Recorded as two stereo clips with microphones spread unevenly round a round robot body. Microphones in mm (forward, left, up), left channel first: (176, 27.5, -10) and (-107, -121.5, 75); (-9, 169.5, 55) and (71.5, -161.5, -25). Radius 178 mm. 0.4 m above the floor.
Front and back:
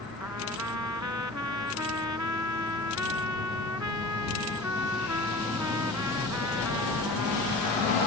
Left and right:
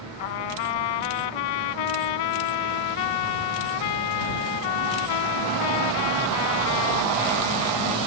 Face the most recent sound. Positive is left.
turn(degrees=130)